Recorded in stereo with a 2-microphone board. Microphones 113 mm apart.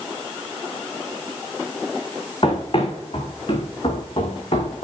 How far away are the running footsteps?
About 5 m.